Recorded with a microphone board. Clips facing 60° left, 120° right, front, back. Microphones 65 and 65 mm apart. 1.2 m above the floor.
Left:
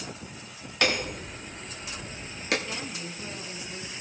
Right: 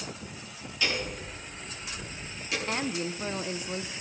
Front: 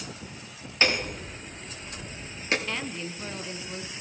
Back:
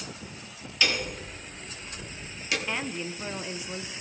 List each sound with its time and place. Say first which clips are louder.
0.8 s hammering: left 4 dB, front 2 dB; 50° left, 1.2 m
2.7 s a woman speaking: right 6 dB, back 1 dB; 105° right, 0.6 m